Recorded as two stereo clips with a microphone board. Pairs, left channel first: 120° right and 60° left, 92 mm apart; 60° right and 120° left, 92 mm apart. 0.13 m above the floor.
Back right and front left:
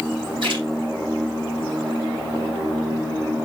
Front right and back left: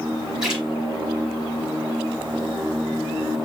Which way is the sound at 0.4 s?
35° left.